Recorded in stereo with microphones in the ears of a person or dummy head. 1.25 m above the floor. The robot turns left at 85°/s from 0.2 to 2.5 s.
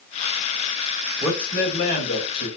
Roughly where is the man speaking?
Behind.